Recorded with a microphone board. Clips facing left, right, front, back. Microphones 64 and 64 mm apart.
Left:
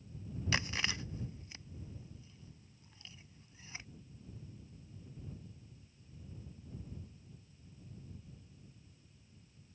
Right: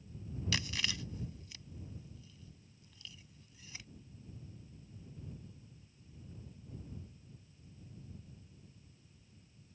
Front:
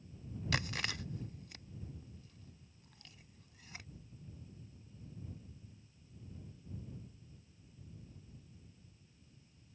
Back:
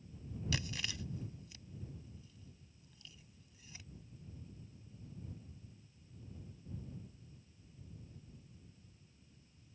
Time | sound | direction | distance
0.5 | chewing | 35° left | ?